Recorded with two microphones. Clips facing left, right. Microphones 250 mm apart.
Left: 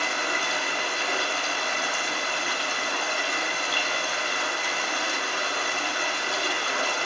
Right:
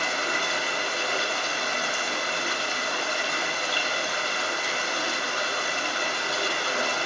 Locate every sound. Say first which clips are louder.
0.0 s running water: right 1 dB; 45° right (ahead or behind), 6 m